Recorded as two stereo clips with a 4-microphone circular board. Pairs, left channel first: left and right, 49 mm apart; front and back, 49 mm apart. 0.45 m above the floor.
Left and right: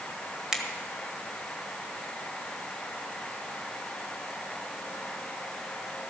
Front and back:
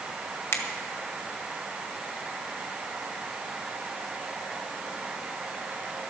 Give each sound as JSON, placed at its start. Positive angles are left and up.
{"t": 0.5, "sound": "a finger snap", "azimuth_deg": -10, "distance_m": 1.5}